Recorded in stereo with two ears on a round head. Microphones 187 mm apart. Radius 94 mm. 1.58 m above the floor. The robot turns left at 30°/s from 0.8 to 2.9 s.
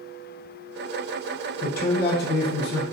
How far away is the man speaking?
About 0.8 m.